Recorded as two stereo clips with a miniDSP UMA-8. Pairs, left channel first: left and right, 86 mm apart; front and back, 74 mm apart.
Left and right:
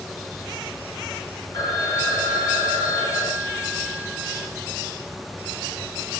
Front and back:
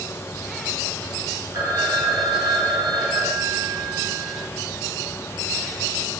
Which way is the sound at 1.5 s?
140° left.